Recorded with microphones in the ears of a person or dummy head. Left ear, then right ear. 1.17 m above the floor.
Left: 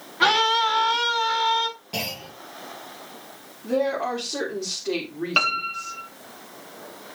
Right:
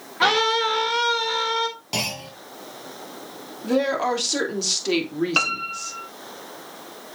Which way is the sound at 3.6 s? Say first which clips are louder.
Right 2 dB; 55° right (ahead or behind).